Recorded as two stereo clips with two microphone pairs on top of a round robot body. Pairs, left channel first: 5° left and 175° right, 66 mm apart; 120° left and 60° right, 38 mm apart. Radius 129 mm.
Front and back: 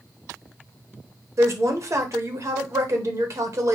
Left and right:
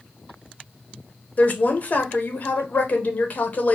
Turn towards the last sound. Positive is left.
turn(degrees=155)